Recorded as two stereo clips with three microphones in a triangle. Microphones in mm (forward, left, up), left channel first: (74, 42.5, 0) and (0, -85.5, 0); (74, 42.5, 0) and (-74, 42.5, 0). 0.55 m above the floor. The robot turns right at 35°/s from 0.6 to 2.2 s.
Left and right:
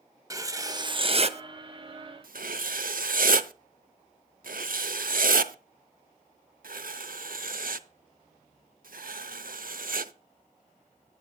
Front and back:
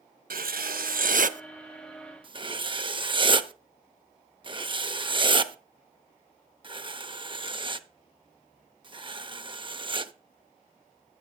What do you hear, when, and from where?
0.3 s writing: 175° left, 0.6 m; by 10.1 s 130° right, 0.6 m